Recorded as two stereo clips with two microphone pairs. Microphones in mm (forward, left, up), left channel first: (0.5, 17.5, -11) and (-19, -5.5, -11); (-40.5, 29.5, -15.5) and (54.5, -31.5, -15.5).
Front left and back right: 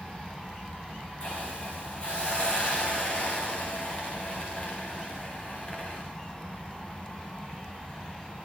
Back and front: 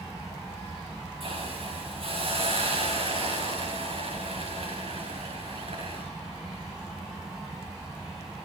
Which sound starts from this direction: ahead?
A hiss, at 1.2 s.